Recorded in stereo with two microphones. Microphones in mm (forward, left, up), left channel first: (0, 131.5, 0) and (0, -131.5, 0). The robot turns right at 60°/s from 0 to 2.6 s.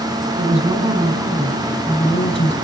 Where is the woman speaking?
25° right (ahead or behind), 1.5 m; by 2.5 s 25° left (ahead or behind), 1.5 m.